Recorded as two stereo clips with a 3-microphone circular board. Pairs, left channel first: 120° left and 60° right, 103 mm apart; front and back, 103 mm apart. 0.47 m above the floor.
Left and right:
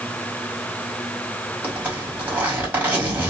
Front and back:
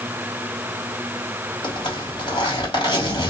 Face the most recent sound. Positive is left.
turn(degrees=5)